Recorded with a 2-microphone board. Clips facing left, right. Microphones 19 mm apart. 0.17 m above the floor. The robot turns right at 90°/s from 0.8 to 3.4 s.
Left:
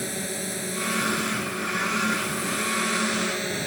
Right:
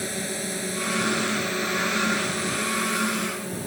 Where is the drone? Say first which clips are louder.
Right 1 dB; straight behind; by 3.7 s 55° left.